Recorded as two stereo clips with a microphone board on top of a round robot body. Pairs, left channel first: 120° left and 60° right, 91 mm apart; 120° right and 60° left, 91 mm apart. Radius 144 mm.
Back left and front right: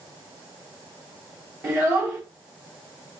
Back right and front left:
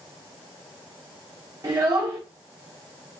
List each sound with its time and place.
1.6 s a child speaking: 5° left, 1.2 m